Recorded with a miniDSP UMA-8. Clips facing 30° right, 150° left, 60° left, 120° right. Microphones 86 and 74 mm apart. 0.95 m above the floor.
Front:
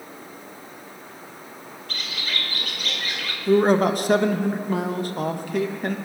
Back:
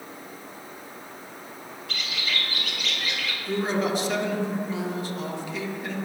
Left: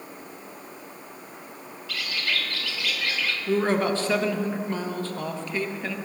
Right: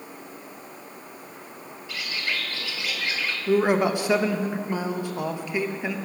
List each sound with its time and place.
1.9 s a bird: 60° right, 1.1 m
3.5 s a man speaking: 45° right, 0.8 m